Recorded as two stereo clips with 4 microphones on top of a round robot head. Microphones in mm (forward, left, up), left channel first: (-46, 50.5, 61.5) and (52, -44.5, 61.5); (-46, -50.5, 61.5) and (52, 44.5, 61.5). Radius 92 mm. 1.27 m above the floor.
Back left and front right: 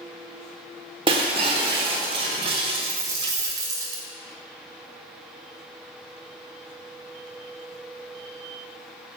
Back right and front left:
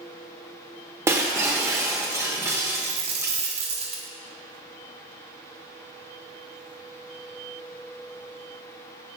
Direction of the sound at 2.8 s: 15° left.